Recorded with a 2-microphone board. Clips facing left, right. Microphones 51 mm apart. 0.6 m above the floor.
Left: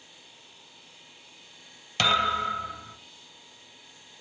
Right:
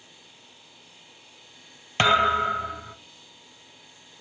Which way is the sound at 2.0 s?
30° right (ahead or behind).